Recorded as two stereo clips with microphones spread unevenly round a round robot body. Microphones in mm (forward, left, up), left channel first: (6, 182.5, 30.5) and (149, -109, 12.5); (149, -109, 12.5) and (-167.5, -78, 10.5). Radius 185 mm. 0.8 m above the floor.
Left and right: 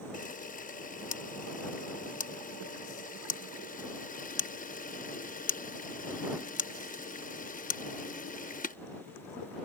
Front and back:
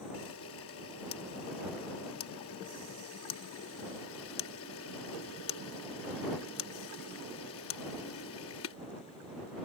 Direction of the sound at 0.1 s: 50° left.